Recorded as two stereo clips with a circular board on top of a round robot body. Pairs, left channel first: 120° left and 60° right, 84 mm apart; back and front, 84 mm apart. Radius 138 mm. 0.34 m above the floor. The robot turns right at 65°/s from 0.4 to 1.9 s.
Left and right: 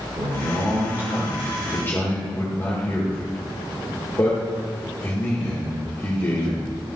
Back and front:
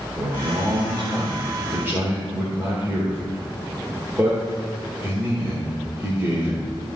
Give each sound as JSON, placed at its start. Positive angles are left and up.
{"t": 0.2, "sound": "a man speaking", "azimuth_deg": -35, "distance_m": 2.0}